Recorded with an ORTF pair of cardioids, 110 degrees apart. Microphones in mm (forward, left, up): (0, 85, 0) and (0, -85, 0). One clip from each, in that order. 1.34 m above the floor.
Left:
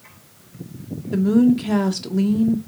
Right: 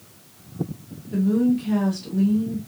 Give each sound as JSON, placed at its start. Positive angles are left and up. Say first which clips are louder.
{"t": 1.1, "sound": "a woman speaking", "louder": "left 4 dB", "azimuth_deg": 50, "distance_m": 0.9}